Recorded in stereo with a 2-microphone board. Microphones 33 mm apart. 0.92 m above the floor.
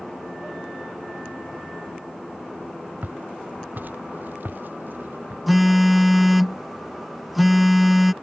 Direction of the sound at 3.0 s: 55° right (ahead or behind).